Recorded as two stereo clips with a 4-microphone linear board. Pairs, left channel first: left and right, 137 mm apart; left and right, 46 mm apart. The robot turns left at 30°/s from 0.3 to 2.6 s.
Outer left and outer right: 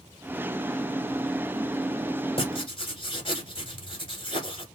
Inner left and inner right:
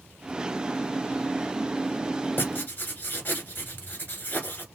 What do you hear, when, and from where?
2.4 s writing: 45° left (ahead or behind), 1.2 m; by 4.7 s 40° left (ahead or behind), 1.2 m